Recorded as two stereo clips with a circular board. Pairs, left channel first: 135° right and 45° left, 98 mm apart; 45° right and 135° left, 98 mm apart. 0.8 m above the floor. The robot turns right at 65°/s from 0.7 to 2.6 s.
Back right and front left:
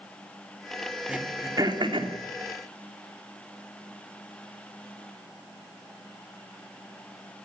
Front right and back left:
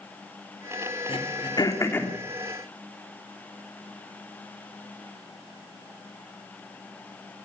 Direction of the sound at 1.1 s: 35° right.